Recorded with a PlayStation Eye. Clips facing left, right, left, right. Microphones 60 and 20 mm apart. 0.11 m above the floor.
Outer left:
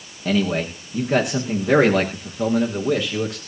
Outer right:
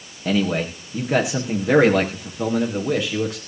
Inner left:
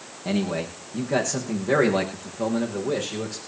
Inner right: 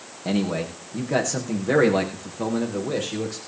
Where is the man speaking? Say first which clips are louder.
Even, inner right 1 dB; 5° right (ahead or behind), 6 m.